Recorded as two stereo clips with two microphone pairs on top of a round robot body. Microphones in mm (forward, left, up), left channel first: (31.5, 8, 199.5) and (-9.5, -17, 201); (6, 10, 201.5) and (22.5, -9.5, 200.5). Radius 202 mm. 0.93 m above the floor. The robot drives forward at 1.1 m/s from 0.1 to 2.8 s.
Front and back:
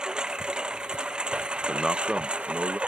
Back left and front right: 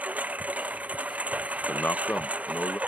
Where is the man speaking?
120° left; by 2.8 s 155° left.